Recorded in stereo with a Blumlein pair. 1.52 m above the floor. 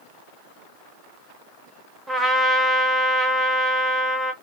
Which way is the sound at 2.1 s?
5° right.